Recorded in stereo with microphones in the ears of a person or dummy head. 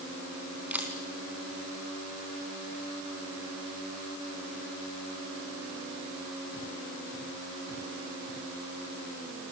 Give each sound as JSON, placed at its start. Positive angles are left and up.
{"t": 0.7, "sound": "a camera shutter", "side_deg": -10, "distance_m": 3.5}